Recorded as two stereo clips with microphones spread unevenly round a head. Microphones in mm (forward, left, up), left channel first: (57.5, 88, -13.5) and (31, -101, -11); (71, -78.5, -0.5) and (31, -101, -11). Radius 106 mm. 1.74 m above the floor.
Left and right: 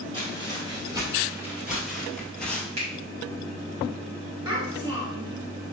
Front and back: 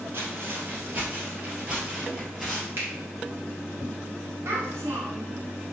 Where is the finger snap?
110° right, 2.0 m.